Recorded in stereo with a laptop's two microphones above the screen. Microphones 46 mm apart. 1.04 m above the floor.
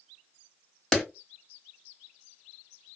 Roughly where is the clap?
Centre.